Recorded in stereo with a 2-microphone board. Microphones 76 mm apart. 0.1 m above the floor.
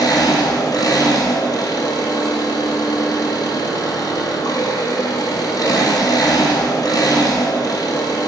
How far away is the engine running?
About 1.5 m.